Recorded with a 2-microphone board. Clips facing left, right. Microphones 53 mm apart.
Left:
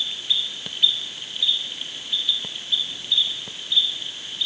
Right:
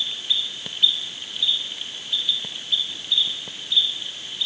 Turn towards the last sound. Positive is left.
No sound to turn to.